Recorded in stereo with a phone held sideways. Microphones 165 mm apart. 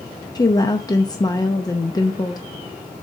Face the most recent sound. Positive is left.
turn(degrees=25)  # may be behind; listen again after turning